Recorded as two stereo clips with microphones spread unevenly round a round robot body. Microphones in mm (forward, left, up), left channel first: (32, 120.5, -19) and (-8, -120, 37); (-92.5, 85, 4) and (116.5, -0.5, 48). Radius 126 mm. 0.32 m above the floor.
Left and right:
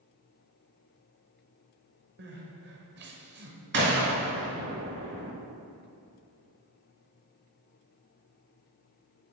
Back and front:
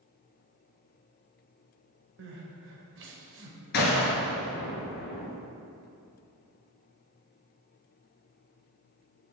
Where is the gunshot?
150° right, 1.1 m.